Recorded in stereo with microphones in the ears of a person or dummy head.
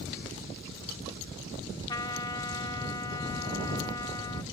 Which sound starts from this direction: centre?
A trumpet, at 1.9 s.